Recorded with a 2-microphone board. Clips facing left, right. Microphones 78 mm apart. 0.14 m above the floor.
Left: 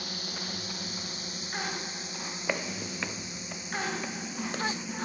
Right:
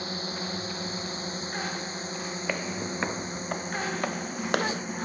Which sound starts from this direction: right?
A drone, at 0.0 s.